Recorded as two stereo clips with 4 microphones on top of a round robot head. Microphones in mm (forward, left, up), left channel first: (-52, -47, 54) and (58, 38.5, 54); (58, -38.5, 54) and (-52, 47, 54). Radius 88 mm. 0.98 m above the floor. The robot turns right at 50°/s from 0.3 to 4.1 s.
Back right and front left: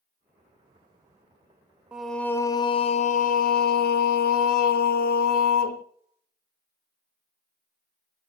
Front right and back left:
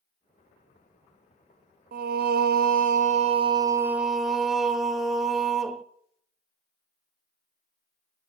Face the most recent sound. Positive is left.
turn(degrees=-130)